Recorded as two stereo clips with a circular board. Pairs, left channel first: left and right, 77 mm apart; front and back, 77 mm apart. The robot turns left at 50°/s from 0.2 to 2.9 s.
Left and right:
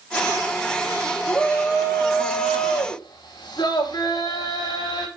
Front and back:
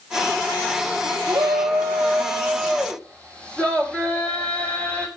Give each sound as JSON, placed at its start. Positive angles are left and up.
{"t": 1.3, "sound": "a shout", "azimuth_deg": 160, "distance_m": 5.5}